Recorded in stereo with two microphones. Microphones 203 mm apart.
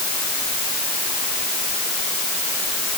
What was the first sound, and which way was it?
Only background noise.